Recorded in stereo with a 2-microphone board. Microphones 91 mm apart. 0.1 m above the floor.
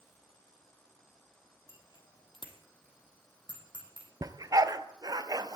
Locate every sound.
1.7 s a bicycle bell: 60° left (ahead or behind), 2 m; by 4.1 s 55° left (ahead or behind), 4.5 m
4.2 s a dog barking: 40° right (ahead or behind), 0.8 m